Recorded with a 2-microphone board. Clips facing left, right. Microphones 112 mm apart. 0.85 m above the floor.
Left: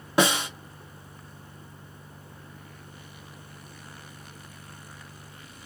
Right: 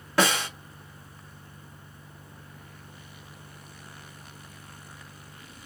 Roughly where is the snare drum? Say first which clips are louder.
Left 1 dB; left.